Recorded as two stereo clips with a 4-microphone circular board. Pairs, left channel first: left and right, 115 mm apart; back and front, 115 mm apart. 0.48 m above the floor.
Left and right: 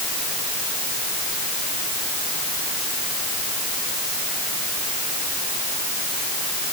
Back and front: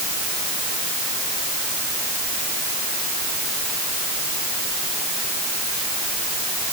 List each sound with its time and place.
Only background noise.